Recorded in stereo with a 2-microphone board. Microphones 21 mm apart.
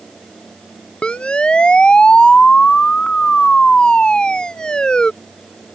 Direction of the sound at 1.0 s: 60° left (ahead or behind).